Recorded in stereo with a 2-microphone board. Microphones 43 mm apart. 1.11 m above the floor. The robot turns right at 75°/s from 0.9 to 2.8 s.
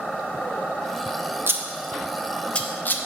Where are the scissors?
55° right (ahead or behind), 0.7 m; by 3.0 s 40° left (ahead or behind), 0.7 m.